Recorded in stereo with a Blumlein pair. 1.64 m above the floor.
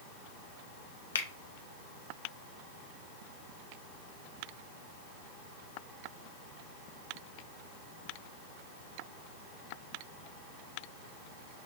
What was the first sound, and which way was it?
A finger snap, 65° left.